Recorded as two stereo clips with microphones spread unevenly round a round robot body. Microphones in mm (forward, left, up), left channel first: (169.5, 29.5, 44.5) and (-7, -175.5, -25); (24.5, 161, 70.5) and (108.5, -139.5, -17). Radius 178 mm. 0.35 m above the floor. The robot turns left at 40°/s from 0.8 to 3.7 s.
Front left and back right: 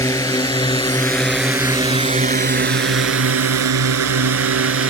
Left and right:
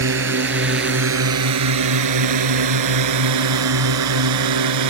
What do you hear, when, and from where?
0.0 s a drone: 30° right; by 4.9 s 100° right